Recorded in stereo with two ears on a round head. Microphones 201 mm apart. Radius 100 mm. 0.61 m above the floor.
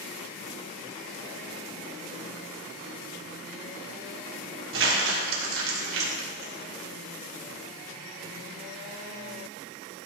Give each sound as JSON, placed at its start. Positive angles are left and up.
{"t": 4.7, "sound": "crumpling", "side_deg": -60, "distance_m": 2.5}